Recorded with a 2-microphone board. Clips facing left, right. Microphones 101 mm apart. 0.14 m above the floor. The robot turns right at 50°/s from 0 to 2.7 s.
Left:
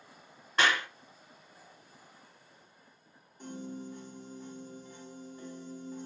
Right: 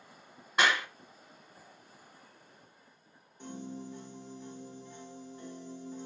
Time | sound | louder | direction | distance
0.6 | a clap | even | 15° right (ahead or behind) | 1.5 m
3.4 | a piano | left 1 dB | 5° left (ahead or behind) | 2 m